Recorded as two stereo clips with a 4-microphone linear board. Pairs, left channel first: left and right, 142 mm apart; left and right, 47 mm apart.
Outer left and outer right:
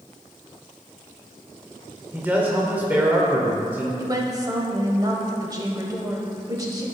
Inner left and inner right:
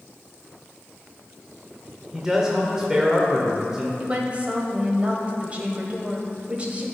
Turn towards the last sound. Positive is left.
turn(degrees=-25)  # may be behind; listen again after turning